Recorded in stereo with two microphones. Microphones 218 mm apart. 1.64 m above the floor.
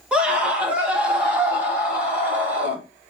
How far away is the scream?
About 2.5 m.